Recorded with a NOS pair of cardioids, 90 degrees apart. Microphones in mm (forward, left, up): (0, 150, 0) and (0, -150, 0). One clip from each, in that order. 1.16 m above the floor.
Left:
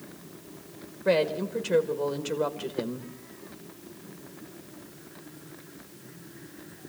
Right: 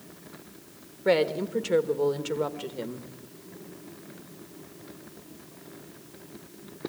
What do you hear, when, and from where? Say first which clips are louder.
1.1 s a woman speaking: right 1 dB; 20° right, 2 m; by 3.1 s 10° left, 1.5 m